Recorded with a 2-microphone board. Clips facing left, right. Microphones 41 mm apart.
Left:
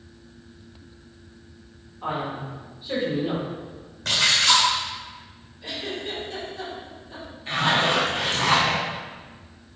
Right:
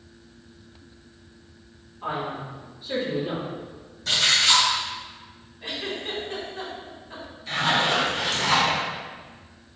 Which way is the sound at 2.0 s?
15° left (ahead or behind).